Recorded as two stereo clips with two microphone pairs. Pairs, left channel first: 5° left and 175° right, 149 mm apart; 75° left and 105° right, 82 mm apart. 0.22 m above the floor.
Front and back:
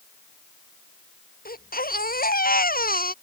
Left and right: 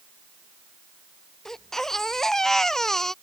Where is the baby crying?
5° right.